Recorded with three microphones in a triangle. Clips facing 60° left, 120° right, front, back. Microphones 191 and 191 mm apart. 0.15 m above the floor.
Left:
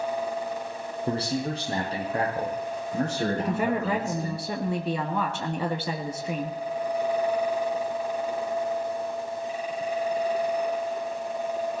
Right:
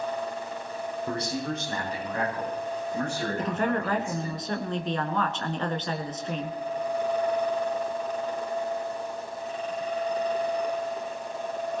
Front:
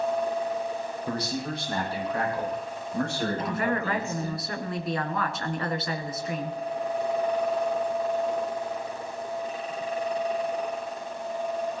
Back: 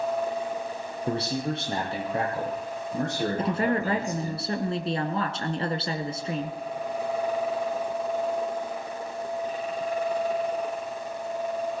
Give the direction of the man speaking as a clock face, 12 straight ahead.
8 o'clock.